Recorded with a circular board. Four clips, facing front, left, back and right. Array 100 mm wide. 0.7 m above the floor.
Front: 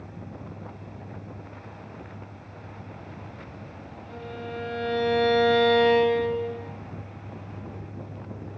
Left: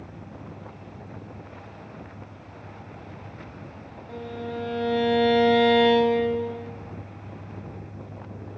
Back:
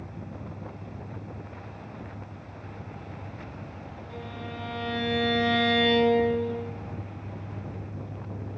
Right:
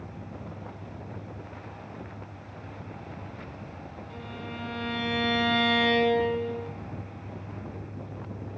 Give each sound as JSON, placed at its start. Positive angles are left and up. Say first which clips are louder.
{"t": 4.1, "sound": "a violin", "louder": "left 9 dB, front 4 dB", "azimuth_deg": 85, "distance_m": 0.6}